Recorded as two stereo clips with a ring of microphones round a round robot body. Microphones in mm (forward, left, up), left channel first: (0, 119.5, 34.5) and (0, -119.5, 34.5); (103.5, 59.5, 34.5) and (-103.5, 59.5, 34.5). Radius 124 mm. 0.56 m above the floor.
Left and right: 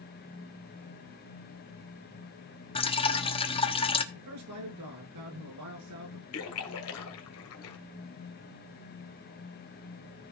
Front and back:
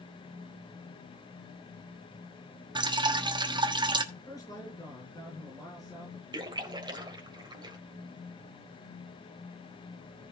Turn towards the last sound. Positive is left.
turn(degrees=110)